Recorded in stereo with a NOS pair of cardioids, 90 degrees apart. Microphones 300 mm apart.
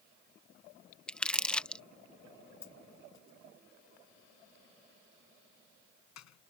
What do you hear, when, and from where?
1.1 s crumpling: 5° left
2.6 s a dropped coin: 65° left